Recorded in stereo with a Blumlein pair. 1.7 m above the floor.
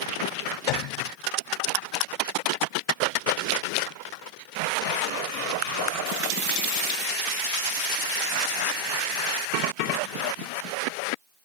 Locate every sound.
0.7 s a piano: 45° left